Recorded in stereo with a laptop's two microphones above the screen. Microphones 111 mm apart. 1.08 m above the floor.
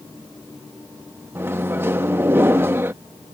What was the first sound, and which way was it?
A microwave, 20° right (ahead or behind).